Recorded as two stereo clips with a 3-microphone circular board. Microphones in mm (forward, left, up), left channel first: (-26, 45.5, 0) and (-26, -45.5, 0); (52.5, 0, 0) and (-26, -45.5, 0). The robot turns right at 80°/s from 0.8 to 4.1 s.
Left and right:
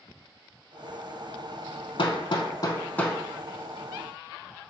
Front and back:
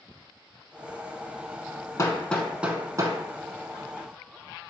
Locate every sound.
2.0 s hammering: 80° left, 0.8 m; by 4.7 s 110° right, 0.8 m